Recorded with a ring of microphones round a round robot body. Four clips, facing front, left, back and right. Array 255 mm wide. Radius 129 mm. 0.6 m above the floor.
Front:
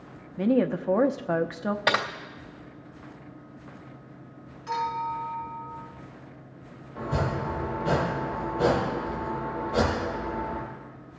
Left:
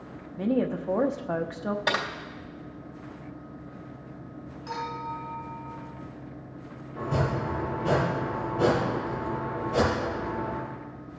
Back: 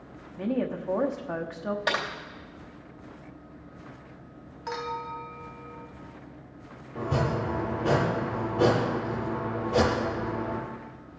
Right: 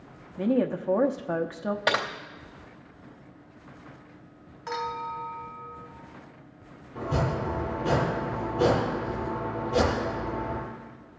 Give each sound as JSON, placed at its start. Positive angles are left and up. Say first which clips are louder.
{"t": 0.4, "sound": "a woman speaking", "louder": "right 1 dB, front 6 dB", "azimuth_deg": -10, "distance_m": 0.6}
{"t": 1.9, "sound": "typing on a keyboard", "louder": "right 3 dB, front 5 dB", "azimuth_deg": -30, "distance_m": 1.3}
{"t": 4.7, "sound": "a clink", "louder": "right 2 dB, front 5 dB", "azimuth_deg": -140, "distance_m": 1.8}
{"t": 7.0, "sound": "chopping", "louder": "even, back 1 dB", "azimuth_deg": -175, "distance_m": 6.0}